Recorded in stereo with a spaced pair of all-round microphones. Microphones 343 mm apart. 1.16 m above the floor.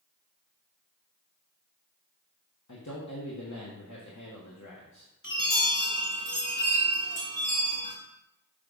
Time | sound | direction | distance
2.7 | a man speaking | 55° left (ahead or behind) | 1.2 m
5.2 | a chime | 70° left (ahead or behind) | 3 m